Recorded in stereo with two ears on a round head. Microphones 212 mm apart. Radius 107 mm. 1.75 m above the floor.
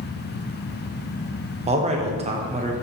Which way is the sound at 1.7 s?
25° right (ahead or behind).